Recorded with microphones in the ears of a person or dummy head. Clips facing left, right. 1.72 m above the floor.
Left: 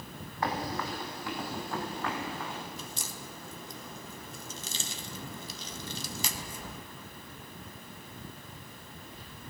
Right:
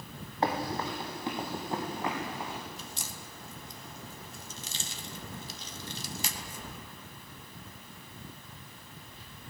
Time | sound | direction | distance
0.4 | running footsteps | 30° right (ahead or behind) | 3.5 m
2.8 | a crack | 85° left | 2 m